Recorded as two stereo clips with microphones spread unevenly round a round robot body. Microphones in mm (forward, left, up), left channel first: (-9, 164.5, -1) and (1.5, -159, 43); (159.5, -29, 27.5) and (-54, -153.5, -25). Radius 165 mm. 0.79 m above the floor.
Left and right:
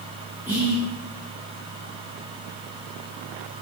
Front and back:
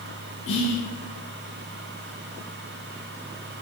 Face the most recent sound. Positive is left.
turn(degrees=5)